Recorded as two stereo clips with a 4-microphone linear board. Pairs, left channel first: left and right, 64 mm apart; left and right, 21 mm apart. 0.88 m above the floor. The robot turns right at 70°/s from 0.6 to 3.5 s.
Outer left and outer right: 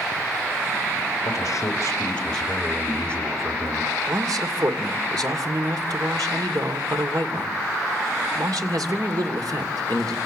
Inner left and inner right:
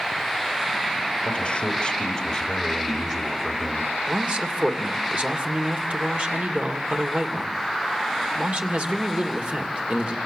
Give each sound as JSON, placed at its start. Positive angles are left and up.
{"t": 1.2, "sound": "a man speaking", "azimuth_deg": 90, "distance_m": 4.5}
{"t": 4.1, "sound": "a man speaking", "side_deg": -80, "distance_m": 2.5}